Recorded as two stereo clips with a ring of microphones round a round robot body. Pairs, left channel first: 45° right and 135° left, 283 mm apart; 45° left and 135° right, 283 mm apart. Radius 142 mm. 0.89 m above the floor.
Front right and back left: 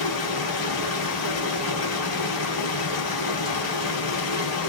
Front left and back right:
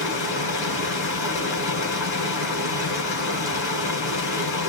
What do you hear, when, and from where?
0.0 s running water: straight ahead, 4 m